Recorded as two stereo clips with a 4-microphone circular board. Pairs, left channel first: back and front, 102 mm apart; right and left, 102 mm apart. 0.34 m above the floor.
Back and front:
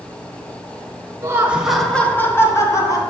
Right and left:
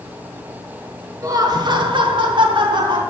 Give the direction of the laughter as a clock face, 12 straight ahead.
10 o'clock.